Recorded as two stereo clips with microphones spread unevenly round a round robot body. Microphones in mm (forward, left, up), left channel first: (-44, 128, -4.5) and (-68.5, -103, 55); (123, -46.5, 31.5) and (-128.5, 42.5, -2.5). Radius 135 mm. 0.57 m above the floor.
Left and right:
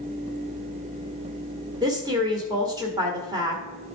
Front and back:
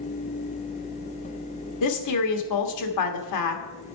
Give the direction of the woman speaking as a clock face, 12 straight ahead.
12 o'clock.